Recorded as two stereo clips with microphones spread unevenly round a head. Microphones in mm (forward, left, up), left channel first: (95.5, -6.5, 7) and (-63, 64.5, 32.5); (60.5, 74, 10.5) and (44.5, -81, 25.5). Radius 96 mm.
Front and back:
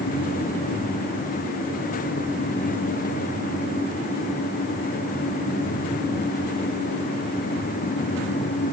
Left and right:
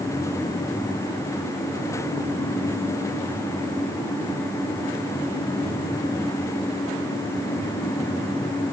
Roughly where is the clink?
No clink in this recording.